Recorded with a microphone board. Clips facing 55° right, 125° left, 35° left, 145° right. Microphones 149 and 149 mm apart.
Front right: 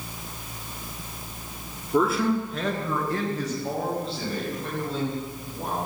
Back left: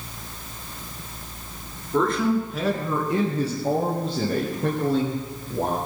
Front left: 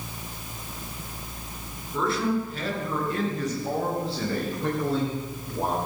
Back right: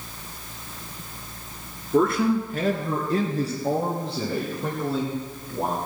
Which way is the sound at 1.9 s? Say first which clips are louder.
Back left 1 dB, back right 6 dB; 130° right.